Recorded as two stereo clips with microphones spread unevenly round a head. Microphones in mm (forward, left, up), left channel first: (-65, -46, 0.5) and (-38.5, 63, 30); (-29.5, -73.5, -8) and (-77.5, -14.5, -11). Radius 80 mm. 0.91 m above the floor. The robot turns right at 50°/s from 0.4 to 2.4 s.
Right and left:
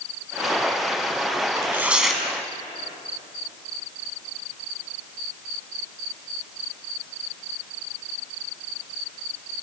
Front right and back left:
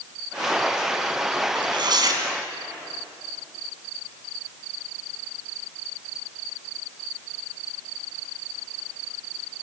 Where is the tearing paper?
135° left, 3.5 m; by 2.2 s 170° left, 3.5 m.